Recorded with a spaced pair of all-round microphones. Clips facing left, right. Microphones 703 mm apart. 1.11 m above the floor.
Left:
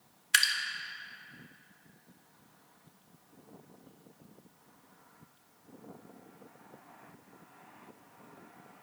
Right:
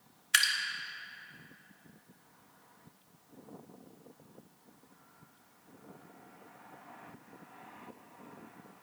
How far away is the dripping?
About 0.6 m.